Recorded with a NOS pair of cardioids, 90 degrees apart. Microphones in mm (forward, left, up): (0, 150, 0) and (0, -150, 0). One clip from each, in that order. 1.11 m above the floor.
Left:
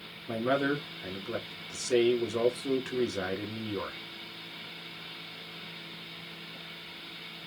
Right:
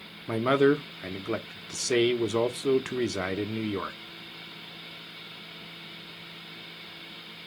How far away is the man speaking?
About 1.2 m.